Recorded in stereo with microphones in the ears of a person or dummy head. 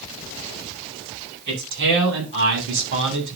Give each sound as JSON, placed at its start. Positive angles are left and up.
{"t": 1.5, "sound": "a man speaking", "side_deg": -60, "distance_m": 8.0}